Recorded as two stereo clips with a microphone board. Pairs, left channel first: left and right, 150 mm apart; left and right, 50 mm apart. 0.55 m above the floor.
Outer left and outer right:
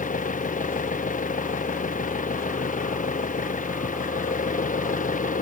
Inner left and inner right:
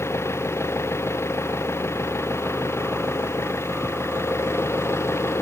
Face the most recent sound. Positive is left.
turn(degrees=60)  # may be behind; listen again after turning